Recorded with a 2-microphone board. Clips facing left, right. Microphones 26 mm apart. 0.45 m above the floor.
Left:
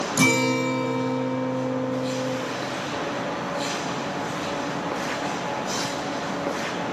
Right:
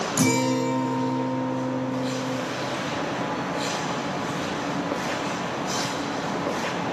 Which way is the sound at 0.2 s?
65° left (ahead or behind).